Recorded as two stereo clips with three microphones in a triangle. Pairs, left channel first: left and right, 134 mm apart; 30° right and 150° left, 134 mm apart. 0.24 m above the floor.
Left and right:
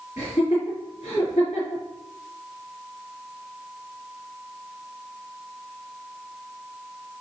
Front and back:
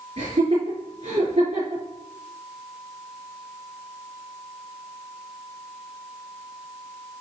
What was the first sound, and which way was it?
Laughter, 135° left.